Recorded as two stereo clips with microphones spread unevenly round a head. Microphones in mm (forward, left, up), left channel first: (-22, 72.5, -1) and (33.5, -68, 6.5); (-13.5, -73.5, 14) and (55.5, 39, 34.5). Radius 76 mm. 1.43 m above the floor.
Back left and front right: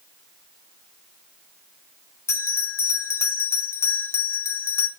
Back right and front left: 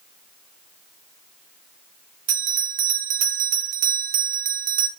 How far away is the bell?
About 1.7 m.